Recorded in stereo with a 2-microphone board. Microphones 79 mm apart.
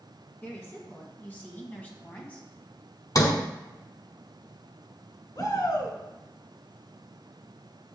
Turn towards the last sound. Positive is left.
turn(degrees=65)  # may be behind; listen again after turning